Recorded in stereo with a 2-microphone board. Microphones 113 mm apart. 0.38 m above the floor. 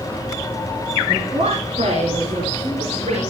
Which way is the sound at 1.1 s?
75° right (ahead or behind).